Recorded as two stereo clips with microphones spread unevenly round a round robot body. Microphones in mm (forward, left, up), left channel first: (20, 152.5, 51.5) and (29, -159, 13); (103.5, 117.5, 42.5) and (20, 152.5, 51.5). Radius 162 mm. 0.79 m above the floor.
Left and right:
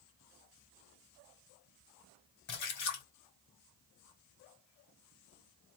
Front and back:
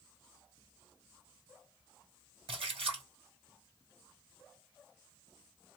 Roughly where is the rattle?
No rattle in this recording.